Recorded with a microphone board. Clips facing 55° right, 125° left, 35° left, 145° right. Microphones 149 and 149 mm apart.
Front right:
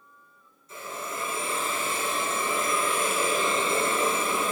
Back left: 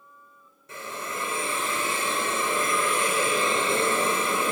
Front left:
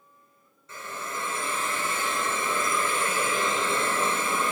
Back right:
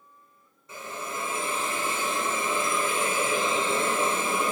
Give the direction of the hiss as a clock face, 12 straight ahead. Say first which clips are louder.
Back left 1 dB, back right 1 dB; 7 o'clock.